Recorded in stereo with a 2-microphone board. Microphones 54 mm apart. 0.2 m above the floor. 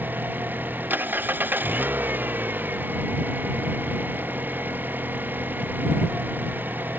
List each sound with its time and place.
0.0 s an engine running: 35° right (ahead or behind)